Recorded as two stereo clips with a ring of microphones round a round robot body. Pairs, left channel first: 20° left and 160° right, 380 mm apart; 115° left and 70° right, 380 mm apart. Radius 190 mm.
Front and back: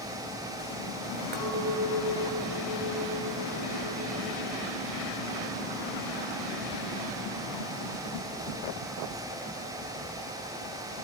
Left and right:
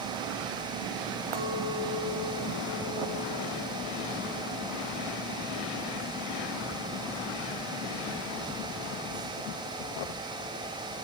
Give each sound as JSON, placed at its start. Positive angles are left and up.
{"t": 1.3, "sound": "a clink", "azimuth_deg": -95, "distance_m": 2.0}